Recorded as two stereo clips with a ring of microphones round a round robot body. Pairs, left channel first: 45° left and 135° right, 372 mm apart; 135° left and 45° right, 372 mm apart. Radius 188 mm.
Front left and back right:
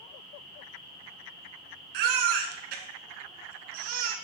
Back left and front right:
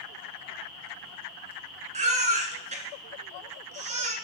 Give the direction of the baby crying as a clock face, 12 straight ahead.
4 o'clock.